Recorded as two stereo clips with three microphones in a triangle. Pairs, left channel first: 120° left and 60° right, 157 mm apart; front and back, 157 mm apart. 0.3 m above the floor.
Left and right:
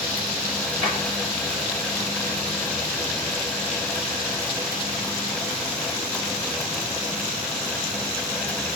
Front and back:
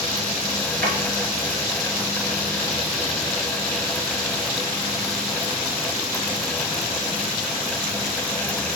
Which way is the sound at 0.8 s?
Straight behind.